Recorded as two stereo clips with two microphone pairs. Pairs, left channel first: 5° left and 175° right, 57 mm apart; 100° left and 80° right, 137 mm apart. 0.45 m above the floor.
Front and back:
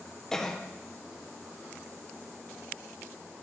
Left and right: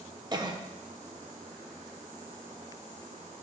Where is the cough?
65° right, 0.8 m.